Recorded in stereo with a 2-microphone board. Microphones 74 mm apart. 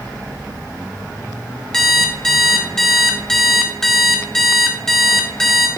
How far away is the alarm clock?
About 1.8 m.